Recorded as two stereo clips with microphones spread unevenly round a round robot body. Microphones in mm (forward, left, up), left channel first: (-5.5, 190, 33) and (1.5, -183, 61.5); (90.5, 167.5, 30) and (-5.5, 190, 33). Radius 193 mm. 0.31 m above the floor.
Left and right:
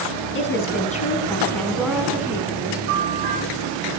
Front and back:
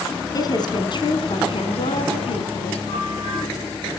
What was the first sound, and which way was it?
A woman speaking, 35° left.